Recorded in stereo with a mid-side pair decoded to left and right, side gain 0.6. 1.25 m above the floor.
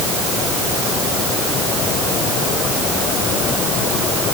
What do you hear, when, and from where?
Only background noise.